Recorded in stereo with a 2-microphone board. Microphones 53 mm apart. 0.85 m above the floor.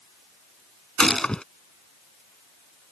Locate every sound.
1.0 s a gunshot: 15° left (ahead or behind)